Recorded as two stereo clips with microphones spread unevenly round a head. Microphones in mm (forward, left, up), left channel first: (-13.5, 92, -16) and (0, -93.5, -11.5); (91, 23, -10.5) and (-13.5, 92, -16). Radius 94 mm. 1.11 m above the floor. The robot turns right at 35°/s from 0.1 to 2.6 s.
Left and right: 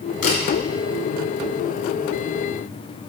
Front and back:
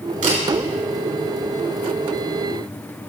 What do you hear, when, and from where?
0.2 s a camera shutter: 140° left, 3.5 m; by 0.4 s 145° left, 3.5 m